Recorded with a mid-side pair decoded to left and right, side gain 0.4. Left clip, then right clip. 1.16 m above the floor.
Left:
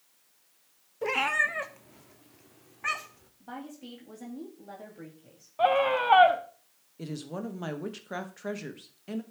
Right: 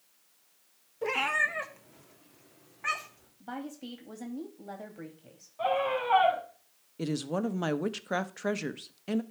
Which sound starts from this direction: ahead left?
A scream, at 5.6 s.